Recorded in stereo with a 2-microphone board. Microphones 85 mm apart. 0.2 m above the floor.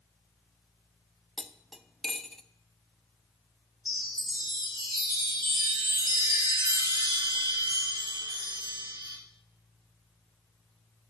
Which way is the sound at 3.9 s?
60° right (ahead or behind).